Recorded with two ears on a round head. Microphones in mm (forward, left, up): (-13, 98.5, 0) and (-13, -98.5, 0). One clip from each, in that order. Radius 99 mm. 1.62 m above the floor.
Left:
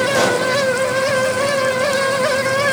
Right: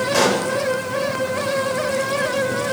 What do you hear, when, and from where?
0.1 s a pop: 20° right (ahead or behind), 8 m